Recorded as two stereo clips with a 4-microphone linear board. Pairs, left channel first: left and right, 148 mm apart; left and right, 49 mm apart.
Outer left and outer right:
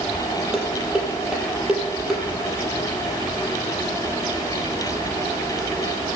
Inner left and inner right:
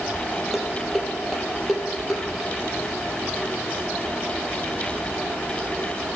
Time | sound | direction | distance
0.5 | dishes clattering | 5° right (ahead or behind) | 6 m